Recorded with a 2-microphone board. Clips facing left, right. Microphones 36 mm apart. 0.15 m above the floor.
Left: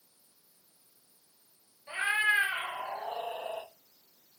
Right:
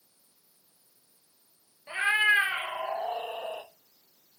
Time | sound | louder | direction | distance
1.9 | a cat meowing | right 4 dB | 25° right (ahead or behind) | 0.7 m